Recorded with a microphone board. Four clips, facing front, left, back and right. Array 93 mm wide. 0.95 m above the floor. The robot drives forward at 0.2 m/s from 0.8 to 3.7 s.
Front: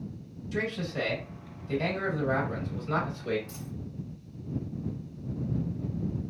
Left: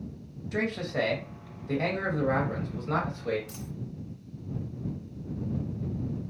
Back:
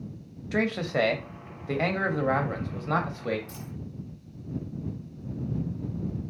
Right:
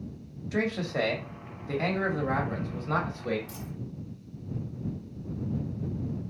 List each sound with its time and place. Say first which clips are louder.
0.5 s a man speaking: right 1 dB, back 6 dB; 175° right, 0.7 m; by 3.4 s straight behind, 1.2 m
3.5 s a dropped coin: even, even; 85° left, 0.9 m; by 3.7 s 90° left, 0.9 m